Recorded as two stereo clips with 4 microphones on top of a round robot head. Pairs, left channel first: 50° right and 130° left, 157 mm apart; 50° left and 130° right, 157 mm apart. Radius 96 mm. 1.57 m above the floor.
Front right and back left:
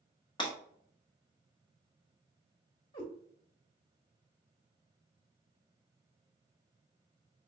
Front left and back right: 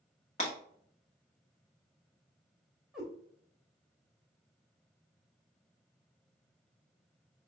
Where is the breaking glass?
10° left, 1.1 m.